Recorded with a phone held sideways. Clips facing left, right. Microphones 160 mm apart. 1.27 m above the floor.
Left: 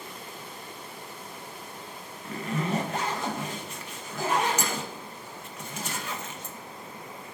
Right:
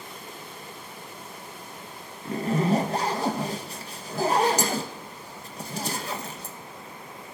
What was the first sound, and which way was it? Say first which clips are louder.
A zipper: right 6 dB; 35° right (ahead or behind).